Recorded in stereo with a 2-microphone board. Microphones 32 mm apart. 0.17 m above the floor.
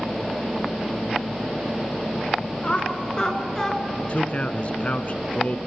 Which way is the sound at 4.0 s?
40° left (ahead or behind).